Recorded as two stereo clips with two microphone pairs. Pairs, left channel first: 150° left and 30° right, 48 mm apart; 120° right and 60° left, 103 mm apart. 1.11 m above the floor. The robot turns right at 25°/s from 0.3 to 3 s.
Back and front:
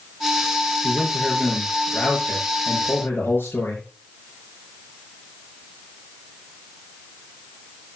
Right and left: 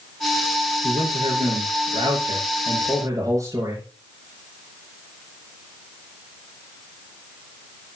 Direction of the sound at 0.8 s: 60° left.